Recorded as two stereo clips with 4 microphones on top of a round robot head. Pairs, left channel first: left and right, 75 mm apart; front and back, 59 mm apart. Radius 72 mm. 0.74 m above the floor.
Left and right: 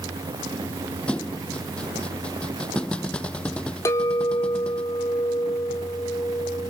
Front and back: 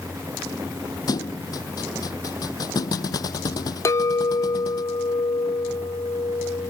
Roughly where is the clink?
Ahead left.